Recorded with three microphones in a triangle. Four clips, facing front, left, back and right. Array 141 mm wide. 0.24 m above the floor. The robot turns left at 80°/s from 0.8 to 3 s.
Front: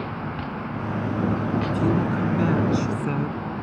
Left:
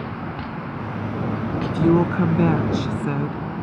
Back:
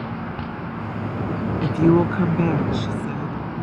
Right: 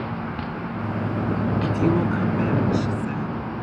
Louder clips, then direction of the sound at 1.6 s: Left 6 dB, back 10 dB; 175° left.